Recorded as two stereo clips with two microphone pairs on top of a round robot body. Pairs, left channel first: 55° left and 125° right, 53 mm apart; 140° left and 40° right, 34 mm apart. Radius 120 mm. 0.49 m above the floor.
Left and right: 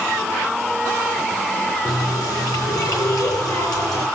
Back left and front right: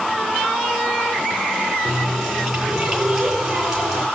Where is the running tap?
45° left, 8 m.